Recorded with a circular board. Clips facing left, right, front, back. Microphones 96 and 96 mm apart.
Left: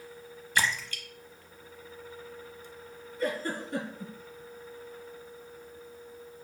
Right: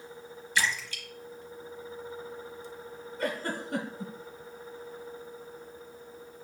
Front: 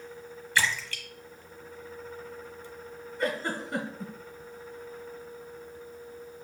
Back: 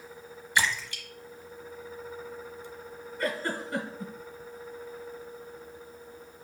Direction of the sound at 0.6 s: 110° left.